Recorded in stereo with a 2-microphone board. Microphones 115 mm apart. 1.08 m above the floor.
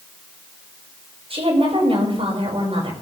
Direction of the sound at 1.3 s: 55° right (ahead or behind).